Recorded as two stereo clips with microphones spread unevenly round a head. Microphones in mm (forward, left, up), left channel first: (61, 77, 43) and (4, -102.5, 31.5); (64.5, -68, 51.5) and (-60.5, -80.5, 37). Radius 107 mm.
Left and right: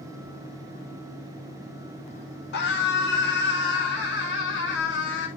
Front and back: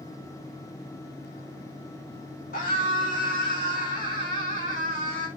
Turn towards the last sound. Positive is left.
turn(degrees=50)